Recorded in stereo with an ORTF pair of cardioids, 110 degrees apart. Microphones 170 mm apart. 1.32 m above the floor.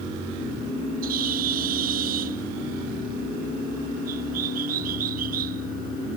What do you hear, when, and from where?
1.0 s a bird: 60° right